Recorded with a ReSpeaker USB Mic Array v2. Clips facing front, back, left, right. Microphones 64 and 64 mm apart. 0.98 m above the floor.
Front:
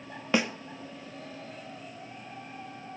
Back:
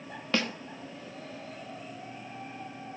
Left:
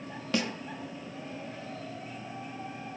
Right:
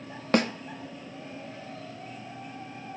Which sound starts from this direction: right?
A snare drum, at 0.3 s.